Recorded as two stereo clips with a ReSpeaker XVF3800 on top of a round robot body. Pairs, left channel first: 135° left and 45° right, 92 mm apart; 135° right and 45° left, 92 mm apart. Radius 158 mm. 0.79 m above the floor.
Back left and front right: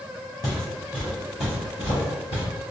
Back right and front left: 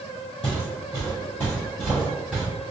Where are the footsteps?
175° right, 1.4 m; by 2.4 s 130° left, 1.9 m.